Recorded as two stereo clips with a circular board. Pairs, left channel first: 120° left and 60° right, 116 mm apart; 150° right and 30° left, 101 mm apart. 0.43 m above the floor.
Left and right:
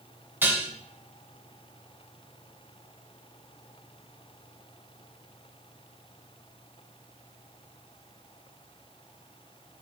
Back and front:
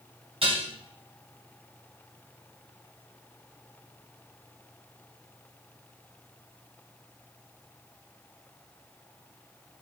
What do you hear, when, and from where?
0.4 s dishes clattering: 15° left, 2.5 m